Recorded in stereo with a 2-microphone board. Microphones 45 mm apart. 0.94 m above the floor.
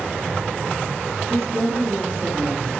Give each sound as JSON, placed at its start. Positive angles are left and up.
{"t": 1.3, "sound": "a woman speaking", "side_deg": -65, "distance_m": 9.5}